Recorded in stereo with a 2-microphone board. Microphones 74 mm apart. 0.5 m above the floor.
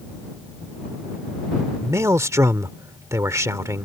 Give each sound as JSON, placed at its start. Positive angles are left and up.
{"t": 1.8, "sound": "a man speaking", "side_deg": -40}